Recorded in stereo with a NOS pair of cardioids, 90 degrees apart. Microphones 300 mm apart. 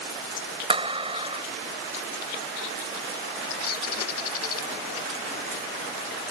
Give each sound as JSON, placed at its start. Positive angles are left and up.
{"t": 0.7, "sound": "a clap", "azimuth_deg": -20}
{"t": 3.6, "sound": "a bird", "azimuth_deg": 55}